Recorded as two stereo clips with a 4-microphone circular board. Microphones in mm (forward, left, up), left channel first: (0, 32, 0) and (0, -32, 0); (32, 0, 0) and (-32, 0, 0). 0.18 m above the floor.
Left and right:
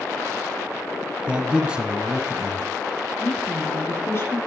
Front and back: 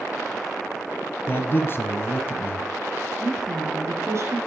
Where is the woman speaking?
140° left, 3.5 m.